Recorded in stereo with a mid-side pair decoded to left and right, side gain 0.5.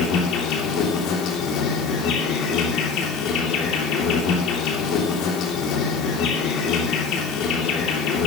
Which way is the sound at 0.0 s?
70° left.